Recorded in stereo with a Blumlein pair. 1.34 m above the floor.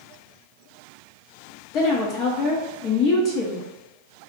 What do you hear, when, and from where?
1.7 s a woman speaking: 35° left, 0.5 m